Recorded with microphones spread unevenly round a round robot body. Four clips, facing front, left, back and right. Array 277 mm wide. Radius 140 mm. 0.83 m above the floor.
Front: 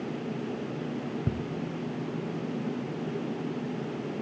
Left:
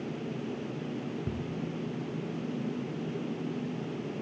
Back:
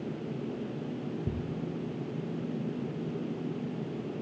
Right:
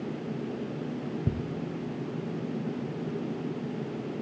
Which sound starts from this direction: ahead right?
Ticking, at 1.3 s.